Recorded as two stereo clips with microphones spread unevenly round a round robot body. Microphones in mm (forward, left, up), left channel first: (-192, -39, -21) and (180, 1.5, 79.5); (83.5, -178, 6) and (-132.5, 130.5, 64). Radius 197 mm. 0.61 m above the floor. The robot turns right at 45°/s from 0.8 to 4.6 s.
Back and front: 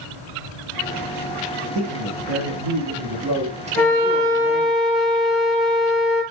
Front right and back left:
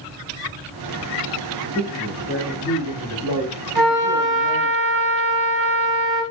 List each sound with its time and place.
1.8 s a man speaking: 5° left, 1.0 m; by 4.8 s 130° left, 1.0 m
3.8 s a flute: 75° left, 1.0 m; by 6.2 s 115° left, 1.0 m